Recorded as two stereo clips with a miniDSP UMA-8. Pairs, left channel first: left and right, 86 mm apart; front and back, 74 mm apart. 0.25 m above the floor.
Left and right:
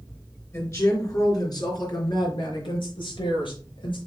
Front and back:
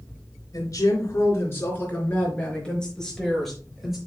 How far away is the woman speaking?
About 4 m.